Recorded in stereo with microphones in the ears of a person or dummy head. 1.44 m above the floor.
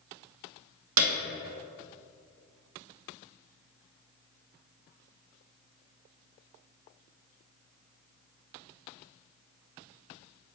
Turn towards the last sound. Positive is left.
turn(degrees=-75)  # may be behind; listen again after turning